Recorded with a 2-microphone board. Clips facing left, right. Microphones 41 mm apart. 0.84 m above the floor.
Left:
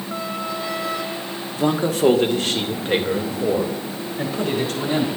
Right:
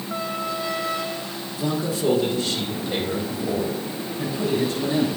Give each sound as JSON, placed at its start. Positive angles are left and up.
{"t": 1.6, "sound": "a man speaking", "side_deg": 50, "distance_m": 1.2}